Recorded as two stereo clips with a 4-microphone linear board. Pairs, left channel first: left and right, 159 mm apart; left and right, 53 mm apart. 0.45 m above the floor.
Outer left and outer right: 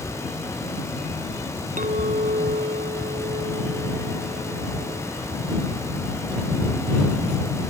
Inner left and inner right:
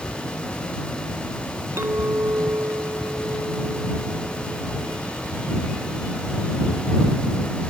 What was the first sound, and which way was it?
A clink, 50° right (ahead or behind).